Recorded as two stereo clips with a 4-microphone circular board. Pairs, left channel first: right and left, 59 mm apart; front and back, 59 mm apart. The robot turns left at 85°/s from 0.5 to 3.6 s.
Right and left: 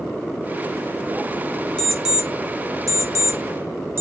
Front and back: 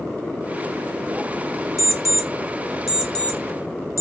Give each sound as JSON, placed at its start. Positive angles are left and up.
{"t": 1.8, "sound": "an alarm clock", "azimuth_deg": -170, "distance_m": 0.6}